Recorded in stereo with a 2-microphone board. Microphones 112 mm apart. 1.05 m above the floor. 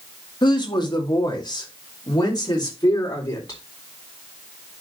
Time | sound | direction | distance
0.4 | a woman speaking | 40° left (ahead or behind) | 2 m